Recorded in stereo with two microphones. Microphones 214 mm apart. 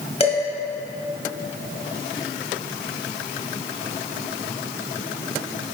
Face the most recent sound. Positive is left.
turn(degrees=30)  # may be behind; listen again after turning